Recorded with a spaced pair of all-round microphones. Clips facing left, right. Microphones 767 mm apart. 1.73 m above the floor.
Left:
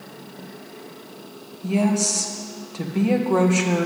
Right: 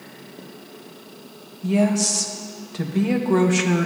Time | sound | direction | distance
1.6 | a woman speaking | 50° right (ahead or behind) | 1.3 m